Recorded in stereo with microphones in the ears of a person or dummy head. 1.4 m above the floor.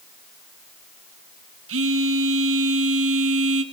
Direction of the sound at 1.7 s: 65° right (ahead or behind).